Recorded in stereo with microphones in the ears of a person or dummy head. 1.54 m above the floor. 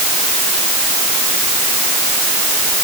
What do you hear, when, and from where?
Only background noise.